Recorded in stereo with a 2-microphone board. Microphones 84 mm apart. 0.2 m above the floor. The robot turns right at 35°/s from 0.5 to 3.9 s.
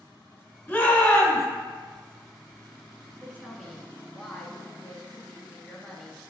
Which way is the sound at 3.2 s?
20° right (ahead or behind).